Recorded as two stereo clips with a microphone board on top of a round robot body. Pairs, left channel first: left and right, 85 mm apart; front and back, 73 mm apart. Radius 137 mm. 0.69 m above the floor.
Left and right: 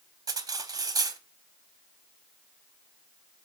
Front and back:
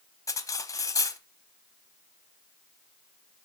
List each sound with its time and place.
0.3 s cutlery clinking: 50° right, 0.9 m